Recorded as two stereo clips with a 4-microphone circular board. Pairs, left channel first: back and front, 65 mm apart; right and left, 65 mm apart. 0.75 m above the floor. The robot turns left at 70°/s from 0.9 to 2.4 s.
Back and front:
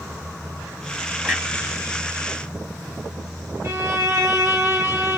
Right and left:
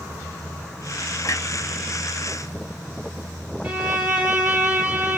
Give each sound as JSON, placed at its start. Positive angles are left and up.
{"t": 1.2, "sound": "a clunk", "azimuth_deg": -65, "distance_m": 2.5}
{"t": 3.6, "sound": "a violin", "azimuth_deg": 20, "distance_m": 1.3}